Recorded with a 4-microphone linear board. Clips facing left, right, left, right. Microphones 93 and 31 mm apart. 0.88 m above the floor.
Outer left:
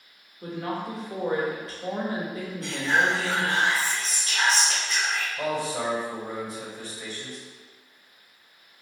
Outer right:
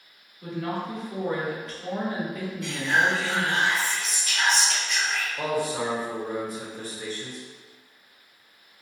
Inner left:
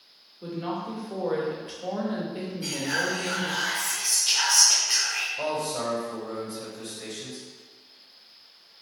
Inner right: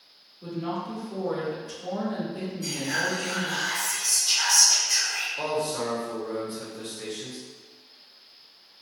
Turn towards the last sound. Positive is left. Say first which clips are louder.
# outer right 2 dB, inner right 1 dB
turn(degrees=-45)  # may be behind; listen again after turning